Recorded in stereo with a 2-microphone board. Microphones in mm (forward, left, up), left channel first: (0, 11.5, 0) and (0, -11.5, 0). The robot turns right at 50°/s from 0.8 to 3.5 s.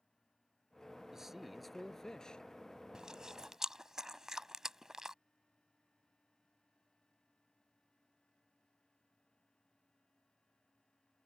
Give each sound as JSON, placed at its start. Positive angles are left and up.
{"t": 1.1, "sound": "a man speaking", "azimuth_deg": -20}
{"t": 2.9, "sound": "chewing", "side_deg": -35}